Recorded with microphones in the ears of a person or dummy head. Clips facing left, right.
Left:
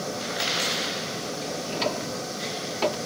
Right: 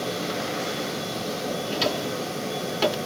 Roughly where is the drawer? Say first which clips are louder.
Right 1 dB; centre.